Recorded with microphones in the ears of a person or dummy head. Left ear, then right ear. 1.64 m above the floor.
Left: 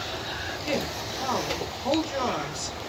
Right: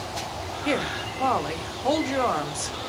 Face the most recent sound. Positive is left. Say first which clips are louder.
# right 4 dB
turn(degrees=-40)  # may be behind; listen again after turning